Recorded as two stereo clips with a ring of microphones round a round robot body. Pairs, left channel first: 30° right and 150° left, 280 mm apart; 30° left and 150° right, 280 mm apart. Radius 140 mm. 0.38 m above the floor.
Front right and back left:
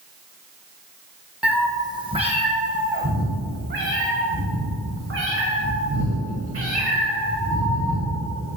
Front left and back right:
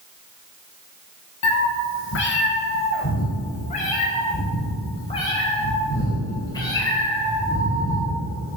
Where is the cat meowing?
65° left, 1.7 m; by 8.6 s 110° left, 8 m.